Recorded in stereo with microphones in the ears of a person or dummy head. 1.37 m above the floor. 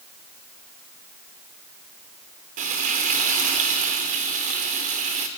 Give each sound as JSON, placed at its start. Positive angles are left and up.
{"t": 2.6, "sound": "frying", "side_deg": -40, "distance_m": 1.4}